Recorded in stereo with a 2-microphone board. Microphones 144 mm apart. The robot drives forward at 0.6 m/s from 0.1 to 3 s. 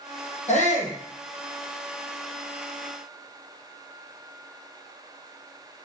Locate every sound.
0.5 s a shout: 55° left (ahead or behind), 3.5 m; by 1.0 s 60° left (ahead or behind), 3.5 m